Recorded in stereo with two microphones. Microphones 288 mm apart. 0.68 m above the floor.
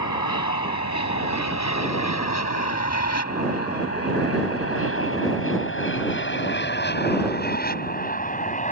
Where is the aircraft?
75° left (ahead or behind); by 8.7 s 25° left (ahead or behind).